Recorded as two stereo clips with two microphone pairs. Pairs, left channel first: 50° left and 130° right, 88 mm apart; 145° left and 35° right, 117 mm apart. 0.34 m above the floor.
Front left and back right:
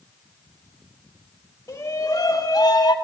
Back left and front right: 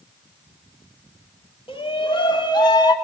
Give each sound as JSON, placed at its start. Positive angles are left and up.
{"t": 1.7, "sound": "a shout", "azimuth_deg": 110, "distance_m": 2.0}